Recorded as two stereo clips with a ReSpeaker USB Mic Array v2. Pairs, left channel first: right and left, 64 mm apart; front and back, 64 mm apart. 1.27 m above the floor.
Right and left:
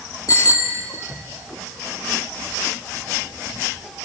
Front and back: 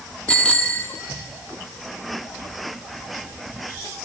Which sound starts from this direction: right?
A bicycle bell, at 0.3 s.